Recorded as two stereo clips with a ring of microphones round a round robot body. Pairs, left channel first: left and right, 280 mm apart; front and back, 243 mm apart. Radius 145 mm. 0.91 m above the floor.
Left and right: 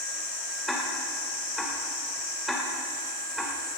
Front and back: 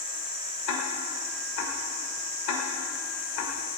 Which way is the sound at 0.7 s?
Straight ahead.